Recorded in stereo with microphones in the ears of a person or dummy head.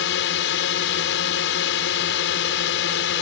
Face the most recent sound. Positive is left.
turn(degrees=70)  # may be behind; listen again after turning